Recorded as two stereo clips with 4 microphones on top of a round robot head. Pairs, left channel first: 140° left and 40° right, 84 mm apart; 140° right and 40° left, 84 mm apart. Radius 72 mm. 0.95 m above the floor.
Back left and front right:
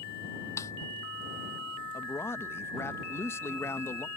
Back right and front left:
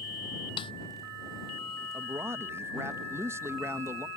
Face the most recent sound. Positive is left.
turn(degrees=90)